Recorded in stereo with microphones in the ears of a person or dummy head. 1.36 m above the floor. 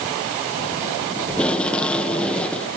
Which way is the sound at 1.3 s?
5° left (ahead or behind).